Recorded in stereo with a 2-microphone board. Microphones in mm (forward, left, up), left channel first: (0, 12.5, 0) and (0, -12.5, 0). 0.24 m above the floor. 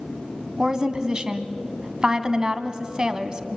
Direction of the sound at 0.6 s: 30° right (ahead or behind).